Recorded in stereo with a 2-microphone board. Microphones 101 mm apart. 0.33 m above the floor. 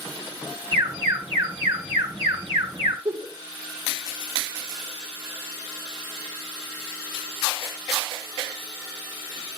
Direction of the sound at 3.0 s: 55° right (ahead or behind).